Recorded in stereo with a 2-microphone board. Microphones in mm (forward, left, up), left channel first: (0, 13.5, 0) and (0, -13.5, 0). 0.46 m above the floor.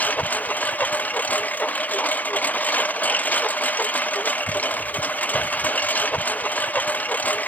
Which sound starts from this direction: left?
A lawn mower, at 0.0 s.